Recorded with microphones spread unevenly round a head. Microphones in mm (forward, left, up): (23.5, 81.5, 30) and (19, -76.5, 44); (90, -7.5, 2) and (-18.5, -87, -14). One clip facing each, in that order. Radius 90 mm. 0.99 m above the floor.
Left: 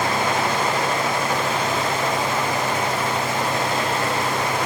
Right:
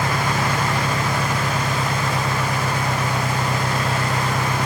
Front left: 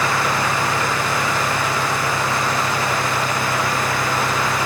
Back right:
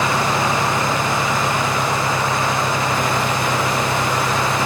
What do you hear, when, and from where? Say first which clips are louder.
0.0 s an engine running: left 1 dB, back right 2 dB; 65° right